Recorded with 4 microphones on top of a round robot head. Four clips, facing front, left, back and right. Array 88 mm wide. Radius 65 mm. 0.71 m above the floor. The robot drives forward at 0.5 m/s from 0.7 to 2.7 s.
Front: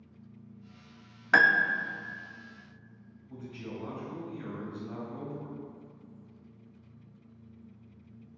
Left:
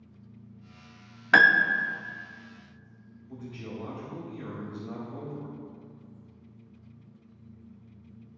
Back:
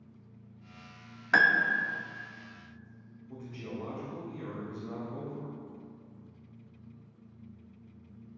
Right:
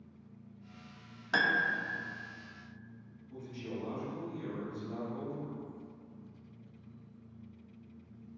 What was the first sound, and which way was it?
A piano, 80° left.